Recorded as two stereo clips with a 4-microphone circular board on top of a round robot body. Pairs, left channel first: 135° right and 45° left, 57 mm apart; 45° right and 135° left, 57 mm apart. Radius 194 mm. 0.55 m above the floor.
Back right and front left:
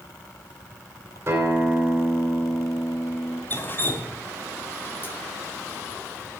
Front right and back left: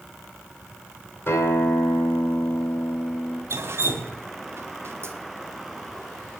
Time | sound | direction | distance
1.3 | a guitar | 5° right | 3.5 m
3.5 | dripping | 175° left | 1.5 m